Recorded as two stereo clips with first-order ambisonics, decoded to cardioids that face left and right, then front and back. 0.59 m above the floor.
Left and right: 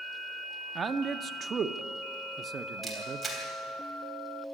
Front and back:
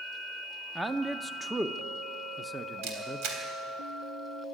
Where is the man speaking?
100° right, 0.6 m.